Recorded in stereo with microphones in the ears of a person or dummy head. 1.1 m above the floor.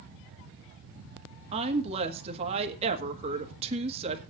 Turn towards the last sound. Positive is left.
turn(degrees=-35)  # may be behind; listen again after turning